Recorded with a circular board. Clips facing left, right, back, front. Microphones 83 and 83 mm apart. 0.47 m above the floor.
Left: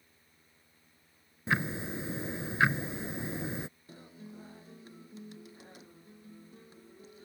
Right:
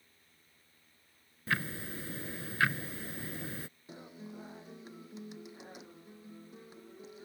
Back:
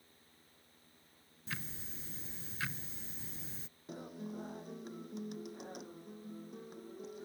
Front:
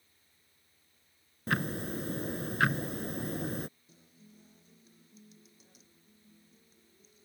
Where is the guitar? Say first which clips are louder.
Right 2 dB, back 15 dB; 160° right.